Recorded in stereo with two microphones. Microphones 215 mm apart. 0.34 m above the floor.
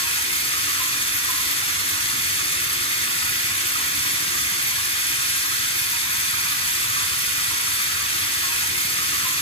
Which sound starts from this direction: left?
Running water, at 0.0 s.